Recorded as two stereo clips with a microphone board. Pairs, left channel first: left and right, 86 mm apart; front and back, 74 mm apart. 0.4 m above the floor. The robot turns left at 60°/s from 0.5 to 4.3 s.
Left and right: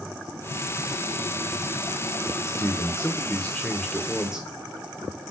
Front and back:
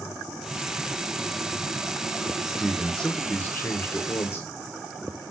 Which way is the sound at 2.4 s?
100° left.